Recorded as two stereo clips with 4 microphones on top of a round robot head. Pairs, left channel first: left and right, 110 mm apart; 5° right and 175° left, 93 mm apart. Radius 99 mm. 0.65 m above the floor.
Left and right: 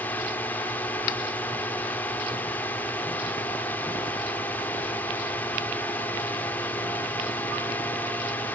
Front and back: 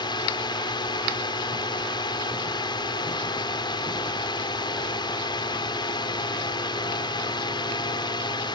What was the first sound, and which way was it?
A drone, 15° left.